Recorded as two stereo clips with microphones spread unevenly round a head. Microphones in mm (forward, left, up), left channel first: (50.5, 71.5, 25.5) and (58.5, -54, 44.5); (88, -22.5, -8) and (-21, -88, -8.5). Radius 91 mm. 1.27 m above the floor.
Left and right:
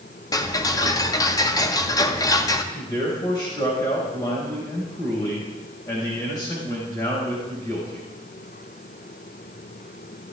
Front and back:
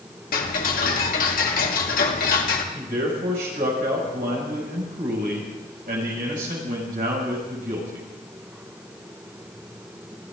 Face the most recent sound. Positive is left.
turn(degrees=165)